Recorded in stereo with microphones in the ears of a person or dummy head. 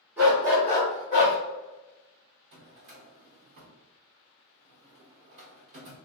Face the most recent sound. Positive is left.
turn(degrees=-35)  # may be behind; listen again after turning